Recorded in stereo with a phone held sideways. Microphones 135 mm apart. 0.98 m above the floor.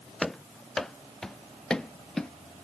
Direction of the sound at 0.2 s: 5° left (ahead or behind).